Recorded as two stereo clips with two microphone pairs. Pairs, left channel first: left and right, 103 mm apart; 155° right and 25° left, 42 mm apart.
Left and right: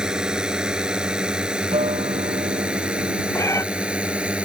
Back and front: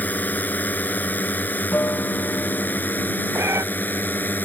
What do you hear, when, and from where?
0.0 s a drone: 170° right; by 4.5 s 165° right
1.7 s a guitar: 115° right
3.4 s a cat meowing: 30° left